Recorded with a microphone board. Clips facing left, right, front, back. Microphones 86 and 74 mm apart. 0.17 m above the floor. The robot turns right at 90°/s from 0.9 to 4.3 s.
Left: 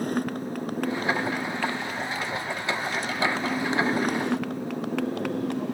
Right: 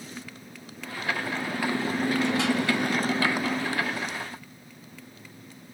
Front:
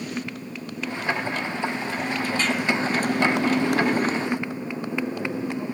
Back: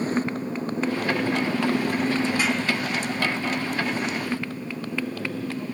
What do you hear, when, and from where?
0.0 s a motorcycle: 125° left; by 5.7 s 70° left